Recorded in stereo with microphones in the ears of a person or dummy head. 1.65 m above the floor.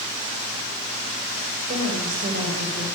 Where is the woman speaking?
40° right (ahead or behind), 7.5 m.